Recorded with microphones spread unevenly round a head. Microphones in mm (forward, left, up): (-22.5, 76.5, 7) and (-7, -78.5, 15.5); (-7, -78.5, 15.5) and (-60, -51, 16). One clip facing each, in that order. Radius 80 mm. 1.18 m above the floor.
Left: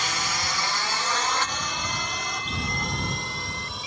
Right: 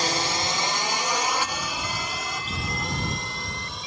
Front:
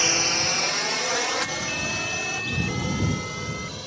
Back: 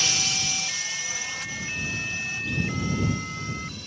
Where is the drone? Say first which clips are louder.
Right 5 dB, front 5 dB; 55° right; by 3.9 s 5° left.